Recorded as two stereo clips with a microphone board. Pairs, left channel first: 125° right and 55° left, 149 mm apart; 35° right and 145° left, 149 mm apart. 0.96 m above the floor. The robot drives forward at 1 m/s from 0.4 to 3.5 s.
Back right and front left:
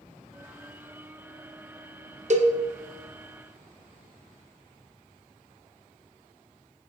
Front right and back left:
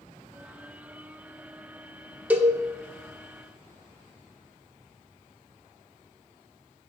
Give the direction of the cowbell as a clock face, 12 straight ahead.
10 o'clock.